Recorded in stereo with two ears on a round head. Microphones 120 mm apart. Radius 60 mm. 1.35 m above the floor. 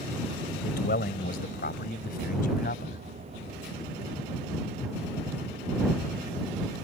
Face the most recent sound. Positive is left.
turn(degrees=65)  # may be behind; listen again after turning